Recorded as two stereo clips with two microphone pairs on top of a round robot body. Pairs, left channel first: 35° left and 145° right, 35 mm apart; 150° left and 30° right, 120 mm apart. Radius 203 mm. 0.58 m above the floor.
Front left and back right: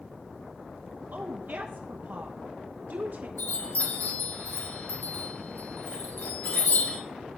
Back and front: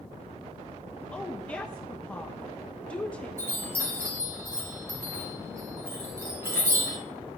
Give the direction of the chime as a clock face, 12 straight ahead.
11 o'clock.